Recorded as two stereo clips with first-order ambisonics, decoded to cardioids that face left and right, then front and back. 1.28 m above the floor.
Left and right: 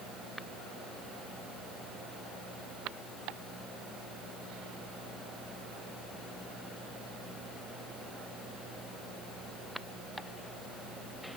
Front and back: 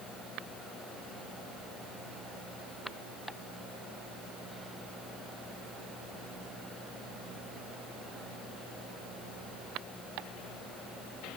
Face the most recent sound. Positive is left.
No sound to turn to.